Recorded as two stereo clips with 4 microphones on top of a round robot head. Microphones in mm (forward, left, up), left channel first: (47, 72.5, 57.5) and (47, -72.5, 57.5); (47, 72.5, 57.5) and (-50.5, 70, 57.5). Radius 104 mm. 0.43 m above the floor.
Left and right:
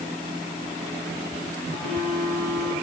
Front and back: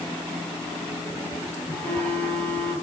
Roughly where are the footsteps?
No footsteps in this recording.